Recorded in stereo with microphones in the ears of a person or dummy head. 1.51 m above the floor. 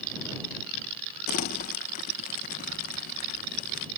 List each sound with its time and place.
1.3 s crumpling: 45° left (ahead or behind)